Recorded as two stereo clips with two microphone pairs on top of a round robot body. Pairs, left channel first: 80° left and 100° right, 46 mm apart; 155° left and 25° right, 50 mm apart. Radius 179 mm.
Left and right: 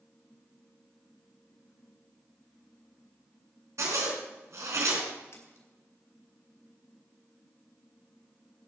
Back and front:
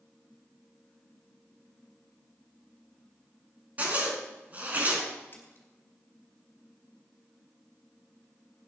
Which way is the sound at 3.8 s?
80° right.